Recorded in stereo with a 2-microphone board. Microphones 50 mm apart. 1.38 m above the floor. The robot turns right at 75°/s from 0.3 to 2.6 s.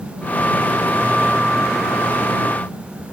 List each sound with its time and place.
Only background noise.